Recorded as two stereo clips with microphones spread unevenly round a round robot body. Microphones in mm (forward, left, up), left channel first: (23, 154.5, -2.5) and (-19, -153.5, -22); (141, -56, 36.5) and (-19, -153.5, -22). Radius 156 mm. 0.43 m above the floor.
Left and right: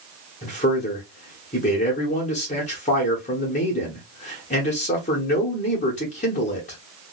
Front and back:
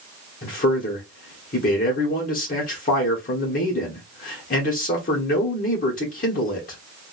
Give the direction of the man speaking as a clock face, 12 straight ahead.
11 o'clock.